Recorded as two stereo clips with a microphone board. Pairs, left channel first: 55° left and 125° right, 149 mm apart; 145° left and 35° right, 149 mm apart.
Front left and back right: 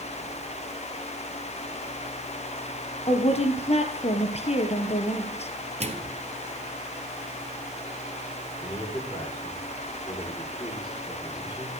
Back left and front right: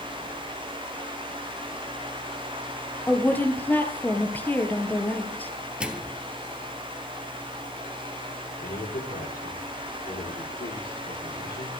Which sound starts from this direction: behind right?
A microwave, at 5.8 s.